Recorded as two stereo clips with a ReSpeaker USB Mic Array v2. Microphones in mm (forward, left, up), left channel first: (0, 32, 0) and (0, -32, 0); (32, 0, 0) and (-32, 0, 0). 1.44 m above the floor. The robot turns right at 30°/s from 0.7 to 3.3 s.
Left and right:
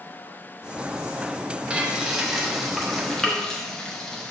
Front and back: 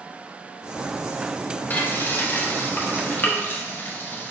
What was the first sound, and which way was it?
Frying, 30° right.